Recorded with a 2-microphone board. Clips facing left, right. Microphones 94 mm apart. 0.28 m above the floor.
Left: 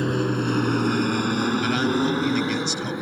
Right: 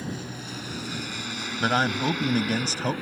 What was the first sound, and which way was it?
An aircraft, 65° left (ahead or behind).